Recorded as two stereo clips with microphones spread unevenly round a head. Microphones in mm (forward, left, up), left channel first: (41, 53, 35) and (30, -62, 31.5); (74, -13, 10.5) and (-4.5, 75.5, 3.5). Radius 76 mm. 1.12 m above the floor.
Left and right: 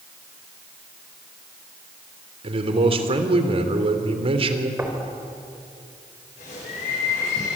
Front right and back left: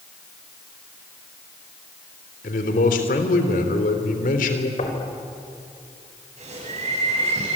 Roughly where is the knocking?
Ahead right.